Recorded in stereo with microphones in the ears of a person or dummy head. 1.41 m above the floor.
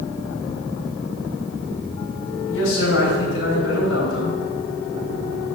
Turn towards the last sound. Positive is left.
turn(degrees=85)